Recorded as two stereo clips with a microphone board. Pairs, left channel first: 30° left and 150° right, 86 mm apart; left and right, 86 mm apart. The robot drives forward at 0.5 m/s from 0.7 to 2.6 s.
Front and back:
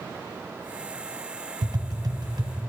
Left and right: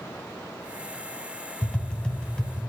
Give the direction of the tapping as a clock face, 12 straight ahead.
6 o'clock.